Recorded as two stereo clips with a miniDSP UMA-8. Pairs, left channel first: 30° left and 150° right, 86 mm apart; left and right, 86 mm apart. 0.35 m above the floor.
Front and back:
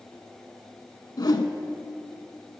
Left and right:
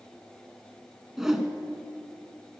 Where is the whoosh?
5° right, 0.5 m.